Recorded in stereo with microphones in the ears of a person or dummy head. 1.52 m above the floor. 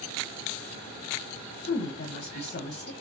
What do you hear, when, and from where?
1.6 s a woman speaking: 35° left (ahead or behind), 1.1 m